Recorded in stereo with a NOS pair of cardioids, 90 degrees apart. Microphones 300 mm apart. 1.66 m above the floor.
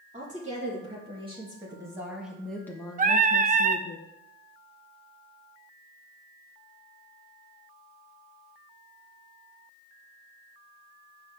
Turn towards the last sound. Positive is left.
turn(degrees=-25)